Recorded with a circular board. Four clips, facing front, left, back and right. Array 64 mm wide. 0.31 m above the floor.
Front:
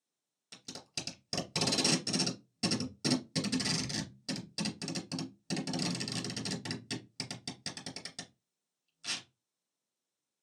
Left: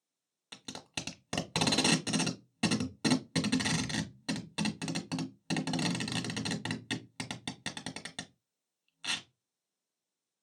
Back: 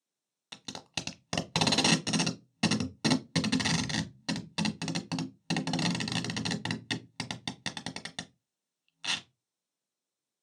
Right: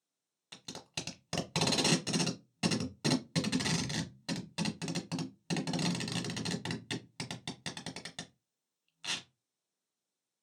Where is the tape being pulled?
165° left, 0.8 m.